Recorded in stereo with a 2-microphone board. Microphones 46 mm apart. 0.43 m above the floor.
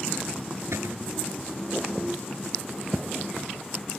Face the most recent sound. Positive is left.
turn(degrees=-85)